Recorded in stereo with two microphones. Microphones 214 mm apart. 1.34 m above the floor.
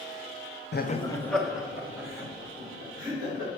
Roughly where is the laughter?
Left.